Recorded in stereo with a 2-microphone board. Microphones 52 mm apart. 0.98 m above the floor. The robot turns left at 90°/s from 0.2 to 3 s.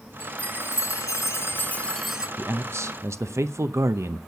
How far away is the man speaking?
About 0.6 m.